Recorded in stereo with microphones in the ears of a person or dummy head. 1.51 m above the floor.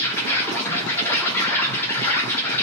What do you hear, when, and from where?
0.0 s an insect: 15° left (ahead or behind), 0.8 m